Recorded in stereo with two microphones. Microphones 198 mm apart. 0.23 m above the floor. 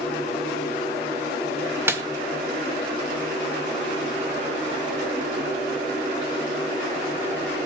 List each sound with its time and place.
1.9 s a snare drum: 10° right (ahead or behind), 1.1 m